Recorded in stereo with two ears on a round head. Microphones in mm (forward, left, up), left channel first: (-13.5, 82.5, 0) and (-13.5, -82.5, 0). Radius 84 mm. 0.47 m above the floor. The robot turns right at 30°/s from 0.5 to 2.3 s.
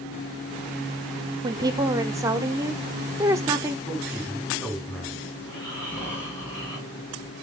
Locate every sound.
1.4 s a woman speaking: 25° right (ahead or behind), 1.0 m; by 3.8 s 15° right (ahead or behind), 1.0 m
3.9 s a man speaking: 10° left (ahead or behind), 4.5 m
5.4 s snoring: 15° left (ahead or behind), 7 m